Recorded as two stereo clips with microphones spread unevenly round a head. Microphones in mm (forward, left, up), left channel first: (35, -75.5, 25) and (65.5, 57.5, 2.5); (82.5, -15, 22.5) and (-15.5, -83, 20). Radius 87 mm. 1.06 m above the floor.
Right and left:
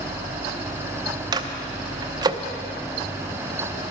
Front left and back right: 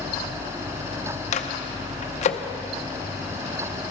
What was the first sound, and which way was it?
A microwave, 25° left.